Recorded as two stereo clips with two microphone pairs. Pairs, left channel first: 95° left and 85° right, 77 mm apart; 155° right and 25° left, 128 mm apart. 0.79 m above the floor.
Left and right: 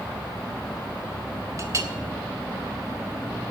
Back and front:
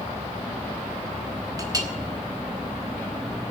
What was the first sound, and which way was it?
A clink, 35° right.